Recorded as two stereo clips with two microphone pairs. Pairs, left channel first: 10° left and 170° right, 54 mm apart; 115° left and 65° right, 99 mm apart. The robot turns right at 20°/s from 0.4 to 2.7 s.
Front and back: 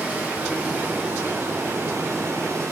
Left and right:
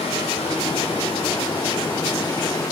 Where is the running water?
125° left, 2 m; by 2.7 s 170° left, 2 m.